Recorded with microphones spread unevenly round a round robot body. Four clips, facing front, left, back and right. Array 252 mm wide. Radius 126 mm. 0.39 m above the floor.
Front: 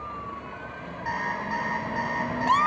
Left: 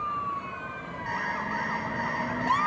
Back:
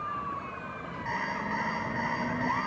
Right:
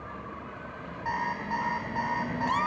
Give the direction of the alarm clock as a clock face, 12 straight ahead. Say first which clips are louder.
Right 1 dB, front 3 dB; 3 o'clock.